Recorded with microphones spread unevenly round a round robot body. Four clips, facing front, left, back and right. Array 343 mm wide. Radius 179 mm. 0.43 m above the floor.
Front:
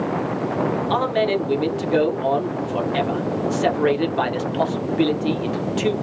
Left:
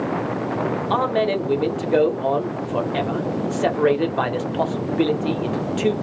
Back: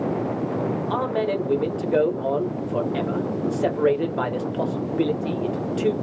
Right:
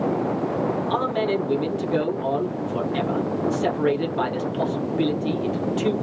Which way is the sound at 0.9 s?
105° left.